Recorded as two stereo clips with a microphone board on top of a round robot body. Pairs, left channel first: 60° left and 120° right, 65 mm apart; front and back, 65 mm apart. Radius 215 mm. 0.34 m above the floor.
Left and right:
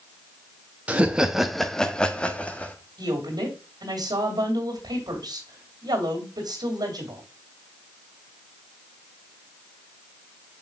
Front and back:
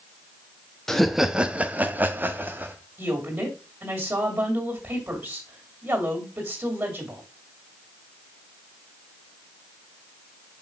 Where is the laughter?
75° right, 1.1 m; by 2.8 s 130° left, 1.9 m.